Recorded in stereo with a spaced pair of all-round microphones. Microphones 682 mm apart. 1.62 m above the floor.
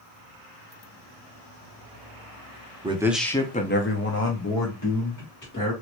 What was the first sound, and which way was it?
A man speaking, 10° right (ahead or behind).